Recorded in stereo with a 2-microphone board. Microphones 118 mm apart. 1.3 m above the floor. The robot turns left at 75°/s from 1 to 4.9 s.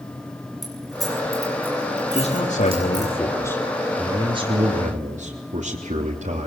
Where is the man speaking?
125° left, 3 m; by 6.5 s 85° right, 3 m.